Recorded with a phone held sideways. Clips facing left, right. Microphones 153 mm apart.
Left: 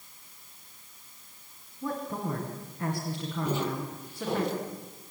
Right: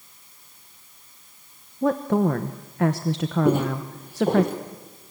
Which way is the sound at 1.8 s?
90° right.